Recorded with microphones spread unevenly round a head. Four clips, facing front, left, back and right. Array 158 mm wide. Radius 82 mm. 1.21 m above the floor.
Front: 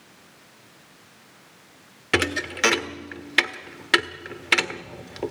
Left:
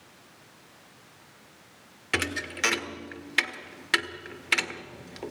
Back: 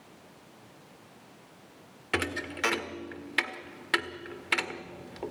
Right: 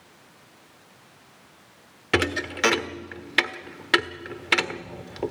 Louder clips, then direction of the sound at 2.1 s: Right 7 dB, front 7 dB; 35° right.